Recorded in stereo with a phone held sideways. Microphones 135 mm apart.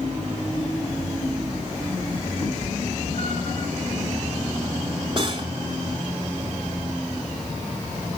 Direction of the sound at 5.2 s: 40° right (ahead or behind).